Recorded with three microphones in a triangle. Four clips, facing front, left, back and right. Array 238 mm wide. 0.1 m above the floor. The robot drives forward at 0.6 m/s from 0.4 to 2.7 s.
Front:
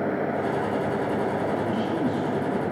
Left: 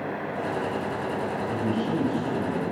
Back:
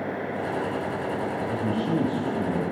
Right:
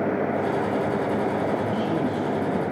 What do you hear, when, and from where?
1.5 s a man speaking: 150° left, 4 m; by 2.6 s 155° left, 4.5 m